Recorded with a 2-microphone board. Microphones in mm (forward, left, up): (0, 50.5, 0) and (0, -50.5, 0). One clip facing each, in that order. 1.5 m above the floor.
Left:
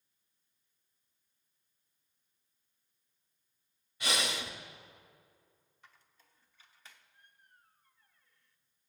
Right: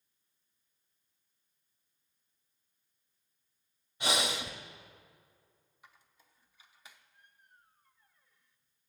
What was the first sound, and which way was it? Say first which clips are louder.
Breathing: right 3 dB; 25° right (ahead or behind).